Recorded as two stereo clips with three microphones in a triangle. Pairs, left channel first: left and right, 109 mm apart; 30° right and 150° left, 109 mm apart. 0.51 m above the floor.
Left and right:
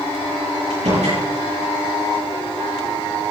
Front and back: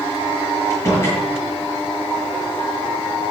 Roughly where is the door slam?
Right.